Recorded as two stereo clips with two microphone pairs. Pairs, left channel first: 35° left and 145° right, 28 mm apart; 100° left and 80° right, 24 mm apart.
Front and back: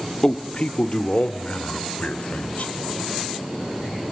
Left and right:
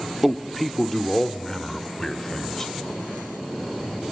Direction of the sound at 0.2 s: Straight ahead.